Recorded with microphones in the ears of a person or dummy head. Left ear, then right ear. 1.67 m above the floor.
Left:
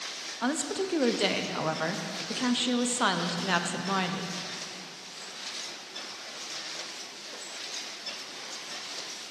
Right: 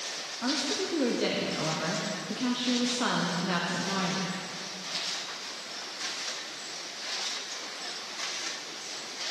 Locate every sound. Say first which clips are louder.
0.4 s a woman speaking: even; 30° left (ahead or behind), 0.5 m